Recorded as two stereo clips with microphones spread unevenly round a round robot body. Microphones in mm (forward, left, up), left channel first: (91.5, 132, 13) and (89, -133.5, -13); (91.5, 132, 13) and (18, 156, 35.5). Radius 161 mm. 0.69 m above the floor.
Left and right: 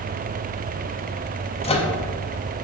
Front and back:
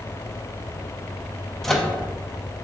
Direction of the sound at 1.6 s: 30° left.